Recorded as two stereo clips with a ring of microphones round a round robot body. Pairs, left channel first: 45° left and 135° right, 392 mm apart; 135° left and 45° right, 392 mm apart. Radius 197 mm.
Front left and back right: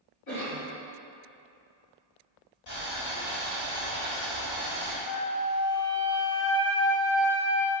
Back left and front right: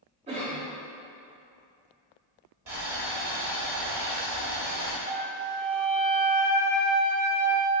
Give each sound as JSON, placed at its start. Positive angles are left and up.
{"t": 0.3, "sound": "a cough", "azimuth_deg": 25, "distance_m": 1.9}
{"t": 2.7, "sound": "boiling", "azimuth_deg": 5, "distance_m": 1.7}
{"t": 5.1, "sound": "a flute", "azimuth_deg": 100, "distance_m": 0.6}